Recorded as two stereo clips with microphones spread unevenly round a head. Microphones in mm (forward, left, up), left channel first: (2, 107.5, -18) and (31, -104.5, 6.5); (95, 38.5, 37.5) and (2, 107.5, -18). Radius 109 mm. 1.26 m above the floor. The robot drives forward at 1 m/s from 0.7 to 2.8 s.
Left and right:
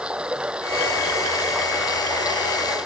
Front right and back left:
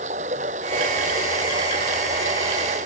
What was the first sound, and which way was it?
Running water, 170° right.